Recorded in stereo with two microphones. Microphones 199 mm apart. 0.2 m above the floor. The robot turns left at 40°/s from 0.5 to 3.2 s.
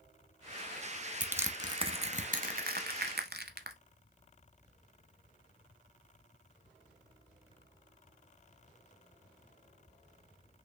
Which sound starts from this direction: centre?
Crushing, at 1.2 s.